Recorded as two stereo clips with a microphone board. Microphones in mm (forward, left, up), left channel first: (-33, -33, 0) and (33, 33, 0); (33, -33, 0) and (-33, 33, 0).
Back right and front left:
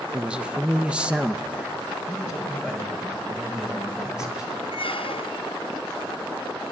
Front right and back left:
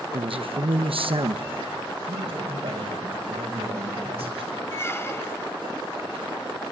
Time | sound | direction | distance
0.1 | a man speaking | 125° left | 1.0 m
2.1 | a man speaking | 130° left | 7.5 m
4.7 | a squeak | 110° right | 0.6 m